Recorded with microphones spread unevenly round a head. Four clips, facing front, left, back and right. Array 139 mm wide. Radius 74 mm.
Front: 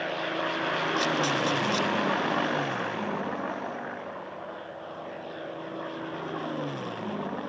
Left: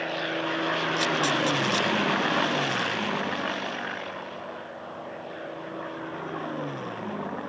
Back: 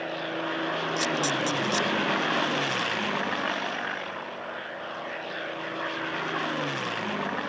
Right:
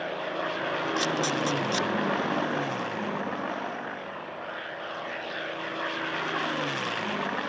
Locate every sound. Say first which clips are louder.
1.0 s a camera shutter: left 2 dB, front 1 dB; 115° right